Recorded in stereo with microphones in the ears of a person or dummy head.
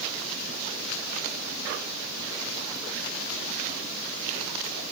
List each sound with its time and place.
Only background noise.